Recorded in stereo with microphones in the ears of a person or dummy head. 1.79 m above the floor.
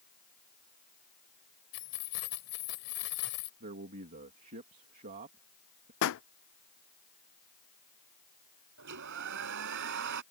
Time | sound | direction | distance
1.7 | keys jangling | 65° left (ahead or behind) | ?
3.6 | a man speaking | 45° right (ahead or behind) | ?
6.0 | a pop | 65° left (ahead or behind) | ?
8.8 | a hair dryer | 65° right (ahead or behind) | ?